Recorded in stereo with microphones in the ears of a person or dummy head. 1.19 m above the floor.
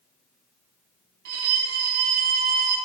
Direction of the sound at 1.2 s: 55° right (ahead or behind).